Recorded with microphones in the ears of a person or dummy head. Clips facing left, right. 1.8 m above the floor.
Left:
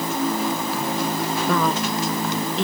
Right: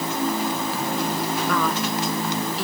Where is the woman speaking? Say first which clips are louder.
Left 4 dB; 30° left (ahead or behind); by 2.6 s 25° left (ahead or behind).